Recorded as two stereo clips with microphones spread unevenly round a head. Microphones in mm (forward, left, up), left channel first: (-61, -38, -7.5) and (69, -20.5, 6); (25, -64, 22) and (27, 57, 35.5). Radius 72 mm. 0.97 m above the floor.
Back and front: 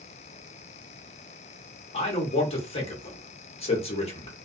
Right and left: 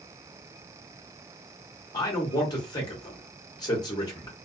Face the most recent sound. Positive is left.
turn(degrees=-140)